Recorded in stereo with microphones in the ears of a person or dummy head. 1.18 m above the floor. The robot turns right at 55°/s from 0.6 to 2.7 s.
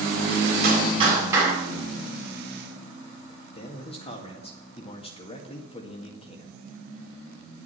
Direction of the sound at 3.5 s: 30° left (ahead or behind).